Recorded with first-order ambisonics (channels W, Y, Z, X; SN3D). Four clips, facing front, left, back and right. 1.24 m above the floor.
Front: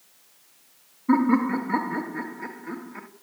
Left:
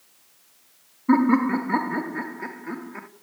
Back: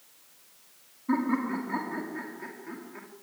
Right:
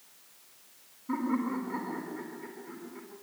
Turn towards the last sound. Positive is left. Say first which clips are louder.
# left 12 dB, front 7 dB
turn(degrees=70)